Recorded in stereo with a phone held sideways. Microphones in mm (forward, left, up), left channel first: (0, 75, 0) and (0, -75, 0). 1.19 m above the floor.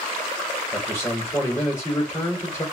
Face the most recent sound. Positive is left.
turn(degrees=20)  # may be behind; listen again after turning